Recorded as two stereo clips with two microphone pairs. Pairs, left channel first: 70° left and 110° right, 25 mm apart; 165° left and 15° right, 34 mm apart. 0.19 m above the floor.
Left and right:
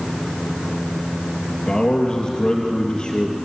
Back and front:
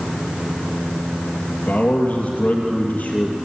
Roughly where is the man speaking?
Behind left.